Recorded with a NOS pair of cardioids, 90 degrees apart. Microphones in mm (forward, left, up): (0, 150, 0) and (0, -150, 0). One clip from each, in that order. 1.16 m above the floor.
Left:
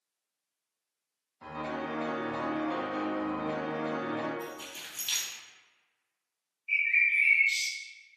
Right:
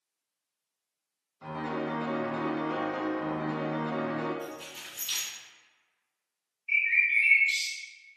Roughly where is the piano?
Ahead.